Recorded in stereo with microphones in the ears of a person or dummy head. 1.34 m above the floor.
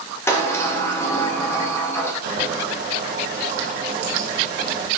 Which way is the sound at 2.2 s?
55° right (ahead or behind).